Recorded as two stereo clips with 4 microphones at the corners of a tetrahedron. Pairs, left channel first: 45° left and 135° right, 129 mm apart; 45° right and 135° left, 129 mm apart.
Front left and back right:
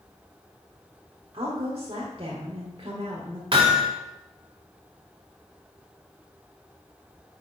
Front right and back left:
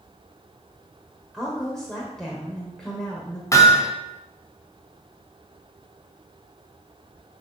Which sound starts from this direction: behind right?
A woman speaking, at 1.3 s.